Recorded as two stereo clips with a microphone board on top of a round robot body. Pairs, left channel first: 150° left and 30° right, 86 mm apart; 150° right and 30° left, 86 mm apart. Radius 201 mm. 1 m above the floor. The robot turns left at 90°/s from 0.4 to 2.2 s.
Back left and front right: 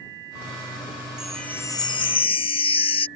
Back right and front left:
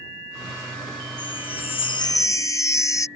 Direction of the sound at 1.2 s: 110° right.